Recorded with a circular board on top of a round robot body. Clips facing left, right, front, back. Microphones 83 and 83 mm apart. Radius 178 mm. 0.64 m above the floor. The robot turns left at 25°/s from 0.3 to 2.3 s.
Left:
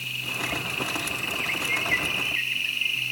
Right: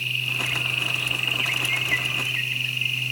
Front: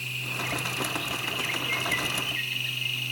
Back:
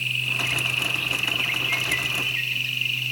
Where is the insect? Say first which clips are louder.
Right 2 dB, back 4 dB; 50° left, 0.8 m; by 3.1 s straight ahead, 0.8 m.